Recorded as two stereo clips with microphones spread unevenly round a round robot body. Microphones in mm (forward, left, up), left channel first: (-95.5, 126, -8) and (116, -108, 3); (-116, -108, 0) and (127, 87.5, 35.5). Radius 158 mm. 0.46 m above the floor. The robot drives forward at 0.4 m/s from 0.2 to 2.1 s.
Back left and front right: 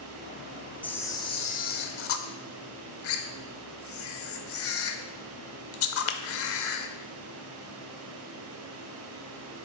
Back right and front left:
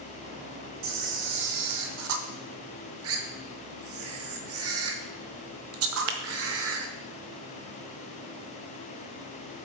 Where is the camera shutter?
45° left, 0.8 m; by 6.9 s 90° left, 0.6 m.